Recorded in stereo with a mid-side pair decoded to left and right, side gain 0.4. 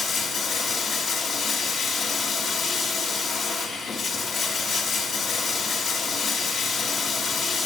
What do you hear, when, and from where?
0.0 s running water: 70° left, 5.5 m